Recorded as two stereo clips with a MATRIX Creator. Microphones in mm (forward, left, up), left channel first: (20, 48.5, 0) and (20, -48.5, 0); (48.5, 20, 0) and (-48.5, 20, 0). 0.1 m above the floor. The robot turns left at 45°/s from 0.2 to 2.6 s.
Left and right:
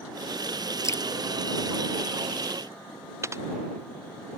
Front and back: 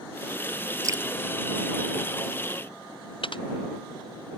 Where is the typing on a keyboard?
30° right.